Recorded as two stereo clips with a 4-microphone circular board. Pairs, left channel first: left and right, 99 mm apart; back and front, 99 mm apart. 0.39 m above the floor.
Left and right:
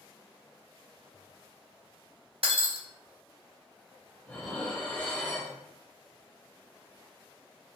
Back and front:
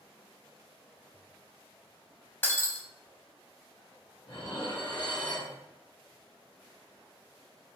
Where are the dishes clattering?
160° left, 0.9 m.